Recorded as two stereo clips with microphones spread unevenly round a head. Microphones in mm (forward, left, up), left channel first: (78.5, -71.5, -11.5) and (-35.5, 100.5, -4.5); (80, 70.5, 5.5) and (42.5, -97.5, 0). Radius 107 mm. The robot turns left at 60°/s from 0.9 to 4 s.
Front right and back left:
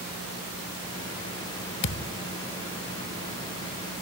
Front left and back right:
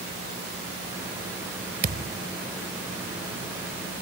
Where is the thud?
70° right; by 2.2 s 90° right.